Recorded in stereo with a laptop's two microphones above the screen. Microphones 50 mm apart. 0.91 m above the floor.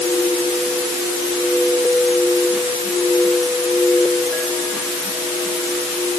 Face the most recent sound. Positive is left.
No sound to turn to.